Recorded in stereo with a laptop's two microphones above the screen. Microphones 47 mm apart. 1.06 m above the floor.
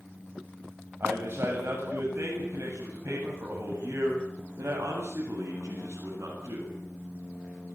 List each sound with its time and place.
1.0 s a man speaking: 55° right (ahead or behind), 8 m; by 6.7 s 70° right (ahead or behind), 10.5 m